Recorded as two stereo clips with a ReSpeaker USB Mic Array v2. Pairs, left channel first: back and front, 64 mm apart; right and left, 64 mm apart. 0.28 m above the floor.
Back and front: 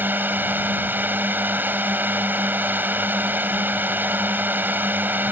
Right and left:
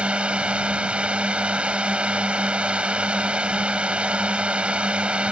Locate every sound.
0.0 s a drone: 30° left